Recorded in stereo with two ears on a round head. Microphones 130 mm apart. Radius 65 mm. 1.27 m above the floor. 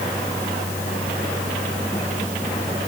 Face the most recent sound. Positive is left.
No sound to turn to.